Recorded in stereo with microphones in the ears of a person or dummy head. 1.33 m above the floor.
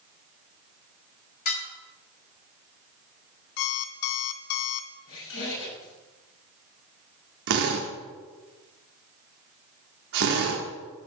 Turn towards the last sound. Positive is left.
turn(degrees=-45)  # may be behind; listen again after turning